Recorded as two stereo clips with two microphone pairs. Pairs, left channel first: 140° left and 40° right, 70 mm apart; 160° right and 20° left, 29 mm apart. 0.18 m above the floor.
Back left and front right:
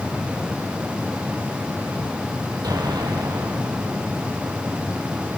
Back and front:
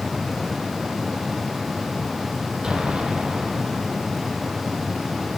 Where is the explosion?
35° right, 4.5 m.